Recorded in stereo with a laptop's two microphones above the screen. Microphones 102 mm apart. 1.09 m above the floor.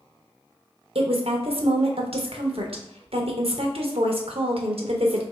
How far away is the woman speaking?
About 0.8 m.